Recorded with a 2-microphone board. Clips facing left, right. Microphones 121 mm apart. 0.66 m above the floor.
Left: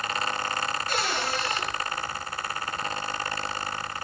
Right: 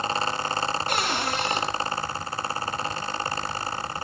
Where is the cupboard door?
65° right (ahead or behind), 3.5 m.